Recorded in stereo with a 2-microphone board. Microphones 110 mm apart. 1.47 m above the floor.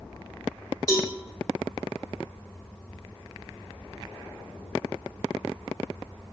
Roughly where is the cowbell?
Left.